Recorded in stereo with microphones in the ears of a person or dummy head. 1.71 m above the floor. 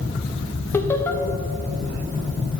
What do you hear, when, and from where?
0.7 s laughter: 15° left (ahead or behind), 0.8 m